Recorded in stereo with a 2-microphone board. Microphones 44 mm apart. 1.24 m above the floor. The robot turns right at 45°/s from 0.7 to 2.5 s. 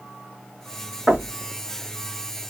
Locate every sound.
1.1 s knocking: 5° right (ahead or behind), 1.2 m; by 1.3 s 20° right (ahead or behind), 1.2 m